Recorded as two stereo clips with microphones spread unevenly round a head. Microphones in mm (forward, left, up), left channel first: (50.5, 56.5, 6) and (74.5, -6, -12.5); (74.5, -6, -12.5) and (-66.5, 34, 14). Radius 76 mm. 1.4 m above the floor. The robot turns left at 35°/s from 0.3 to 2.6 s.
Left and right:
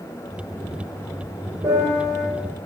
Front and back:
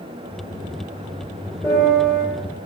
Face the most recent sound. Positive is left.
turn(degrees=-165)